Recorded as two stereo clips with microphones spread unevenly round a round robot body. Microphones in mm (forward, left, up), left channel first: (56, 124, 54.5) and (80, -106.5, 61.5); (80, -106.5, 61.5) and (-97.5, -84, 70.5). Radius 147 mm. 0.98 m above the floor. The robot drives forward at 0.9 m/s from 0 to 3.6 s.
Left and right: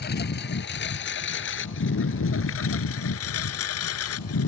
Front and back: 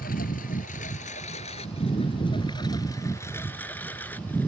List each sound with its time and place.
0.0 s a lawn mower: 50° left; by 4.5 s 75° left